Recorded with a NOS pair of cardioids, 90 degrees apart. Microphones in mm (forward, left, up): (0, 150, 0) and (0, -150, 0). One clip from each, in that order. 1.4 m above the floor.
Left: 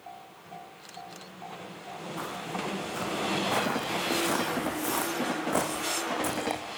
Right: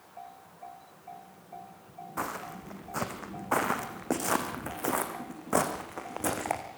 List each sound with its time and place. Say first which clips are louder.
2.2 s footsteps: even; 40° right, 5 m; by 6.6 s 15° right, 6 m